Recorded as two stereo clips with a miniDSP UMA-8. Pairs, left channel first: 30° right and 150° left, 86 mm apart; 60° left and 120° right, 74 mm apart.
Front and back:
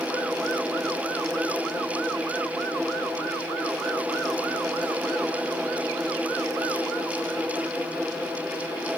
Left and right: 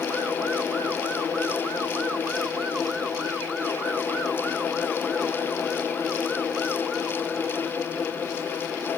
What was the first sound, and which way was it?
Only background noise.